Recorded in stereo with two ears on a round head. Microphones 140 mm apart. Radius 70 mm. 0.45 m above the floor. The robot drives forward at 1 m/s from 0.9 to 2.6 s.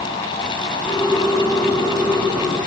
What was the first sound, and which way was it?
Only background noise.